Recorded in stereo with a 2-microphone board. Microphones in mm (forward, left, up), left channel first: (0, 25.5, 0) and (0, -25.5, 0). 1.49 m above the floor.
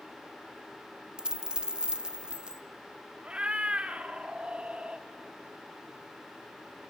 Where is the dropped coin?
20° right (ahead or behind), 0.8 m.